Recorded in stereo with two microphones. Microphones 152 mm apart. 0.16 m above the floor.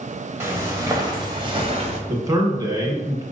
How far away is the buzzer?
No buzzer in this recording.